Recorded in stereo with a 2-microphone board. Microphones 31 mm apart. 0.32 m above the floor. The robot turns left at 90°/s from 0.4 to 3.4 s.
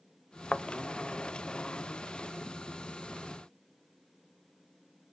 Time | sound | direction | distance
0.5 | a thud | 35° left (ahead or behind) | 0.5 m